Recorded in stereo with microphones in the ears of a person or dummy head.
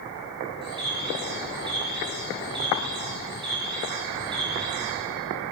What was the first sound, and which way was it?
A bird, 25° right (ahead or behind).